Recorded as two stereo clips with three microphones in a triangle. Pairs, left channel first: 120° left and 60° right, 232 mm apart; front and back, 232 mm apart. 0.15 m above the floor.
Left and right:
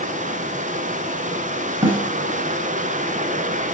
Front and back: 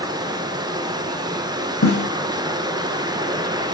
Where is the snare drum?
10° left, 4 m.